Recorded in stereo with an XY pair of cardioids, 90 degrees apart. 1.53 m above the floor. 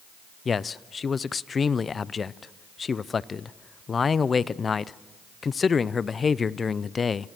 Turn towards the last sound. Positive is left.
turn(degrees=40)